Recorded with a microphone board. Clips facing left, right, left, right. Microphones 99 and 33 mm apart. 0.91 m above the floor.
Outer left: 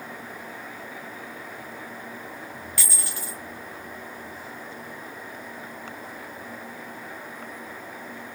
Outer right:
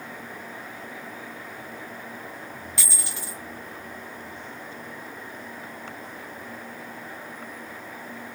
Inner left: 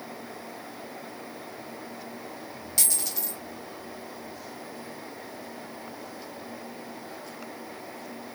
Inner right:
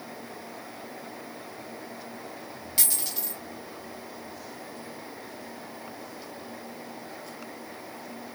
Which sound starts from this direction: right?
A dropped coin, at 2.8 s.